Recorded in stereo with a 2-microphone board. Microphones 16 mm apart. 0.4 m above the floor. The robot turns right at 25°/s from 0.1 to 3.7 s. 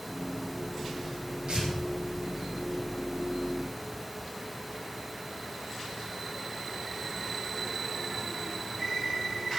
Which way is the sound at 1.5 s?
65° right (ahead or behind).